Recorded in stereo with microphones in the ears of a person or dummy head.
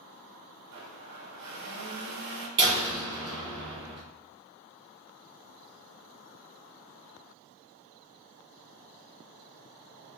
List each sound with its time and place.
0.7 s a blender: 70° right (ahead or behind), 0.7 m
2.6 s a door slam: 25° right (ahead or behind), 0.7 m